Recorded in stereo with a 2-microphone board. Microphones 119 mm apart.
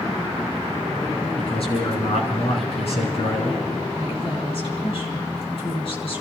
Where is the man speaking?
60° left (ahead or behind), 3 m.